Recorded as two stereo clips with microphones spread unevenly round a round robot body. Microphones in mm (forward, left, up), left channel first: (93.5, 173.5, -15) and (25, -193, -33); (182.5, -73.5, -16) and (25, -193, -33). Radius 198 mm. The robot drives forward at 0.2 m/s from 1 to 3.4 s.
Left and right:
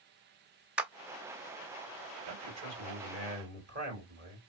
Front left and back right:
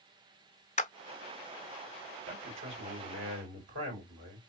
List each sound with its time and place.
0.8 s a clap: 15° right, 0.9 m
2.2 s a man speaking: 160° right, 3.5 m